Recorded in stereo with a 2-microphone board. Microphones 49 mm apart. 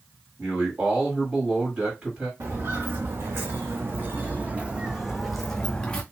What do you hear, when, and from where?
0.4 s a man speaking: 30° right (ahead or behind), 1.9 m
2.4 s footsteps: 80° right, 1.5 m; by 6.0 s 20° left (ahead or behind), 1.0 m